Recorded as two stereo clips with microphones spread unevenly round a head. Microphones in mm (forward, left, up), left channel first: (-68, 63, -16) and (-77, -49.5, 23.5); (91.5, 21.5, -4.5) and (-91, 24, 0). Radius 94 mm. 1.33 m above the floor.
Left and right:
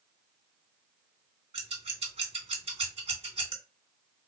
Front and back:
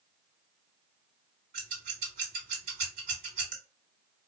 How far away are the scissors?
About 1.9 m.